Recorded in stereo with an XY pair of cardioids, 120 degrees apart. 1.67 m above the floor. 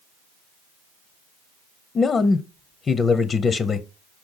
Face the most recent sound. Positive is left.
turn(degrees=35)